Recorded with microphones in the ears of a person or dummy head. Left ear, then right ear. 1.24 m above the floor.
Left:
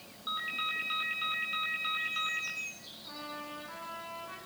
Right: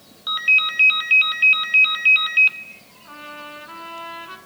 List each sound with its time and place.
0.3 s a ringtone: 80° right, 3 m
3.0 s a trumpet: 70° right (ahead or behind), 7 m